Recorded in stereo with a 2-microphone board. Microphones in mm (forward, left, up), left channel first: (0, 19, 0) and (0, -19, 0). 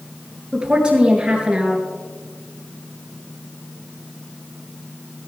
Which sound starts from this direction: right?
A woman speaking, at 0.5 s.